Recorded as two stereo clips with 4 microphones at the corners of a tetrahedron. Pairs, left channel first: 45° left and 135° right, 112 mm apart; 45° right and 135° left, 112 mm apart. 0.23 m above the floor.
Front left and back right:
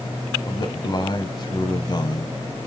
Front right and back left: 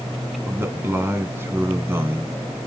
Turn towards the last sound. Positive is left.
turn(degrees=75)